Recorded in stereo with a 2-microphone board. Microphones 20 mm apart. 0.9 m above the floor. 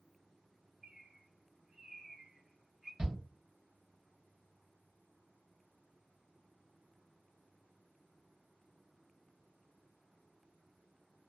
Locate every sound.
0.8 s a bird: 40° right (ahead or behind), 1.0 m
3.0 s a shout: 40° right (ahead or behind), 1.1 m